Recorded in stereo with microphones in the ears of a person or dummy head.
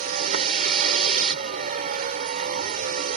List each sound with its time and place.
0.0 s a vehicle: 50° right (ahead or behind)